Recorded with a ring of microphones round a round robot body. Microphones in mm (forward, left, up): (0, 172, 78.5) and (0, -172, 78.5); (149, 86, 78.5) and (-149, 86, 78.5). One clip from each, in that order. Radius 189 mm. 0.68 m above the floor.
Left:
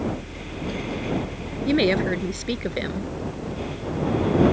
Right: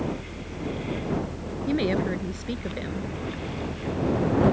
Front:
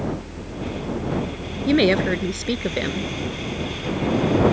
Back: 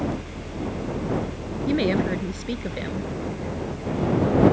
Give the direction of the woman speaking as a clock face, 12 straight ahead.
11 o'clock.